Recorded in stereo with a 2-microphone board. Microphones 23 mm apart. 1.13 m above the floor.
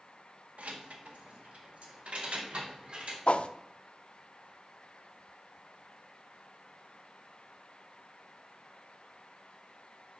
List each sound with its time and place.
0.6 s keys jangling: 85° right, 1.2 m; by 3.2 s 55° right (ahead or behind), 2.5 m
3.3 s a whoosh: 60° left (ahead or behind), 0.5 m